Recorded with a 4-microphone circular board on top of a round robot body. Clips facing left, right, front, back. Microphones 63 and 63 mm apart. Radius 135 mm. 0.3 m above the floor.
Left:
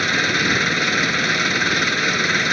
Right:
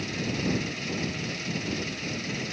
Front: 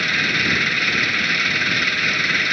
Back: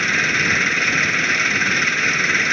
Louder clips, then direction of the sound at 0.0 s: Left 11 dB, back 2 dB; 105° left.